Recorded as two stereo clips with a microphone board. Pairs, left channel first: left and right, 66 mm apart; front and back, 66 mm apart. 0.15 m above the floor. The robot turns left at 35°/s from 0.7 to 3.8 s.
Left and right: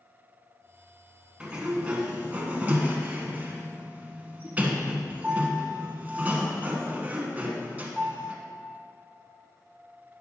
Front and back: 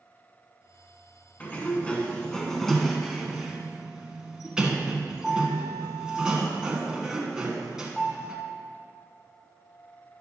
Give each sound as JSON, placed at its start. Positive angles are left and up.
{"t": 1.4, "sound": "a sliding door", "azimuth_deg": -35, "distance_m": 1.3}